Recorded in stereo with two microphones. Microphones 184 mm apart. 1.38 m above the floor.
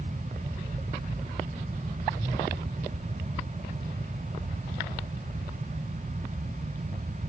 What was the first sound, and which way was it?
Only background noise.